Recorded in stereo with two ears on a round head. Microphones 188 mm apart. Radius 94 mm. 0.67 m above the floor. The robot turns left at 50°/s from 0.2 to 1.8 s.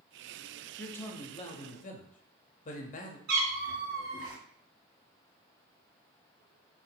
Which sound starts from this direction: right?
A cat meowing, at 3.3 s.